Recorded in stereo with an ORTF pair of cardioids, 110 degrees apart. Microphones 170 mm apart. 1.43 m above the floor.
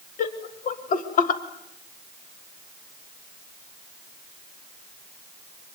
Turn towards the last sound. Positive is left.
turn(degrees=50)